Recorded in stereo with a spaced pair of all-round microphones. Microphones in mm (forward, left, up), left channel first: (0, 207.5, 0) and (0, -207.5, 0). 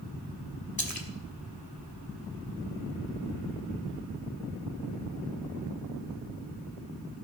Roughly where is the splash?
Left.